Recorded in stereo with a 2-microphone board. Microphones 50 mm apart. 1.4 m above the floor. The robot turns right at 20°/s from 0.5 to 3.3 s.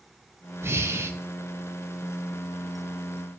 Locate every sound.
0.6 s breathing: 55° right (ahead or behind), 0.9 m; by 1.1 s 65° right (ahead or behind), 0.9 m